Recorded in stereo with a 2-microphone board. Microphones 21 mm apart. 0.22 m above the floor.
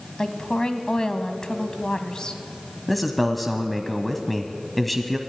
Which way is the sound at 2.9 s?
Centre (ahead or behind).